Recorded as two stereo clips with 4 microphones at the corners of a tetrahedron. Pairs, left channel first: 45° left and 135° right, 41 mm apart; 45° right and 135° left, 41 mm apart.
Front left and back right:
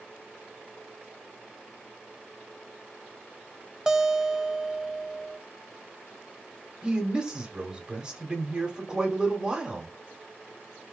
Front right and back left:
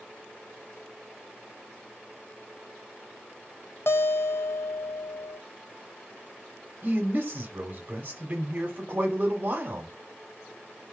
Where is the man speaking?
160° left, 1.1 m.